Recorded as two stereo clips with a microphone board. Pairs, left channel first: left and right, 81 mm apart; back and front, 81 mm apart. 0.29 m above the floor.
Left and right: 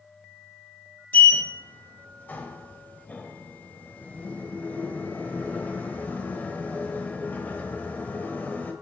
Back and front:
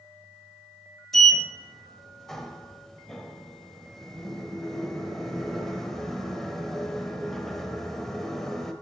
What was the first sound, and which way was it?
A sliding door, 100° left.